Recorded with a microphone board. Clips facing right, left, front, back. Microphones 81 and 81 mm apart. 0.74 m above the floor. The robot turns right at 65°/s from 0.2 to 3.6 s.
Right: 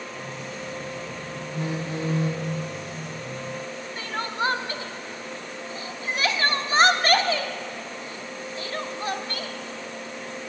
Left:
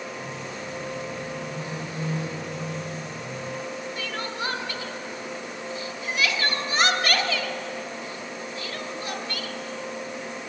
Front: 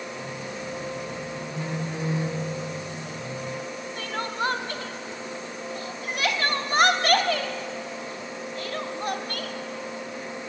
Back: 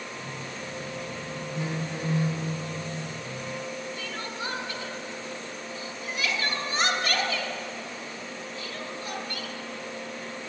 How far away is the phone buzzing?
About 1.4 m.